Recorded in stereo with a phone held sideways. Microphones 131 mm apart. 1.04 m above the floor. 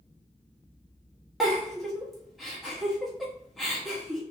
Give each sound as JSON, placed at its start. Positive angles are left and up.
{"t": 1.4, "sound": "a giggle", "side_deg": 0, "distance_m": 1.1}